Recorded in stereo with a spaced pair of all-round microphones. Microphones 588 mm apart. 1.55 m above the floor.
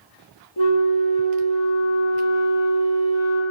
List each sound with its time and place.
0.6 s a flute: 45° left (ahead or behind), 0.9 m